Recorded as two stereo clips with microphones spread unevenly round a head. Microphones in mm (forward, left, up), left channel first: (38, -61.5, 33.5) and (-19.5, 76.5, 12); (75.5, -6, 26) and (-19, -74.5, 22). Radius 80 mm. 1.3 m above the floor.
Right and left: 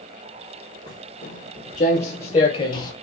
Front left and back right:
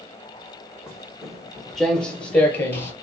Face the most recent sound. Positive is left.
turn(degrees=-25)